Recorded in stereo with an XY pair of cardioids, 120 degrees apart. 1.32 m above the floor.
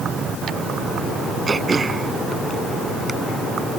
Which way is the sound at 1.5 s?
20° right.